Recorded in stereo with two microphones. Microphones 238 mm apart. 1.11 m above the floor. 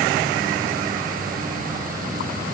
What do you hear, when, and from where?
Only background noise.